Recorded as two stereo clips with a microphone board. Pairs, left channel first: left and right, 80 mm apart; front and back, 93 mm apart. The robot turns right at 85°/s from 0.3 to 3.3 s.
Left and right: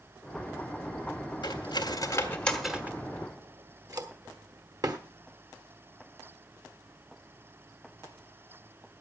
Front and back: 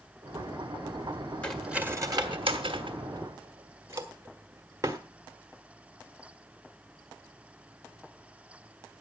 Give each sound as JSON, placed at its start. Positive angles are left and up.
{"t": 1.4, "sound": "cutlery clinking", "azimuth_deg": 80, "distance_m": 1.4}